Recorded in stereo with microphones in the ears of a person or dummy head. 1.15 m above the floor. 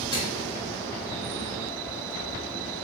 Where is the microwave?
25° left (ahead or behind), 1.5 m.